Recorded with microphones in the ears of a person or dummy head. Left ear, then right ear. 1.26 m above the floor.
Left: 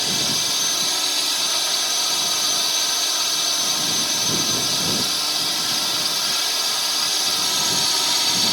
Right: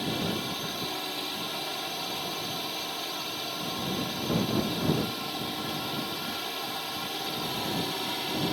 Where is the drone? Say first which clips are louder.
Left 10 dB; 55° left (ahead or behind).